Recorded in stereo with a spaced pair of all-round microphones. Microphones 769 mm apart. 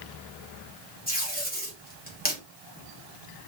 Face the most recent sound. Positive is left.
turn(degrees=10)  # may be behind; listen again after turning